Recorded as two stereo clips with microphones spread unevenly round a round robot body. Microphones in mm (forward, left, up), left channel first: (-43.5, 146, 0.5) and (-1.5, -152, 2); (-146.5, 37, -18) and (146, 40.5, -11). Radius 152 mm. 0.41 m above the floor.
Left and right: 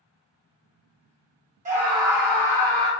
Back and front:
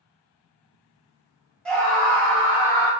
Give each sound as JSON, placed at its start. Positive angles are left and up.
{"t": 1.6, "sound": "a scream", "azimuth_deg": -100, "distance_m": 0.9}